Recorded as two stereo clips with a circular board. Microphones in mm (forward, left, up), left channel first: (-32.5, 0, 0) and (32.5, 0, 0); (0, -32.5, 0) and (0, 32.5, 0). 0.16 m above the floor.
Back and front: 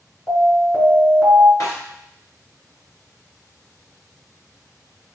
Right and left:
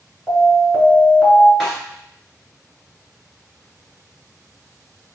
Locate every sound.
0.3 s an alarm: 175° right, 2 m
1.6 s a snare drum: 170° right, 2.5 m